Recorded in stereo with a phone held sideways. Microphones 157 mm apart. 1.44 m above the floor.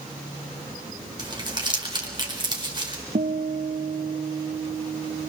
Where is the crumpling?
30° right (ahead or behind), 4 m.